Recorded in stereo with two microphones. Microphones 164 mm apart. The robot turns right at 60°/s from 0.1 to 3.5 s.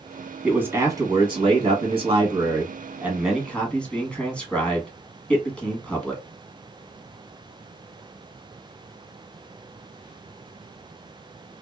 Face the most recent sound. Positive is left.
turn(degrees=15)